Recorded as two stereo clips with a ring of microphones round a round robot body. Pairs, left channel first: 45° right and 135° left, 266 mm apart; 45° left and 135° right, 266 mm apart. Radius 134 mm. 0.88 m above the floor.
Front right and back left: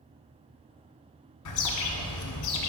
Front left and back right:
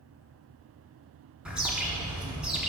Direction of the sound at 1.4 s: 50° right.